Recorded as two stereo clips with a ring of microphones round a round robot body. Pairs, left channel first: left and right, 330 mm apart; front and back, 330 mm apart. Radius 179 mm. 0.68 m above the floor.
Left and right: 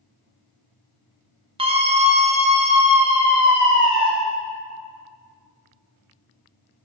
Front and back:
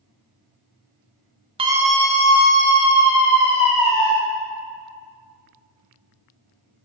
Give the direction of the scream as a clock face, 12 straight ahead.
5 o'clock.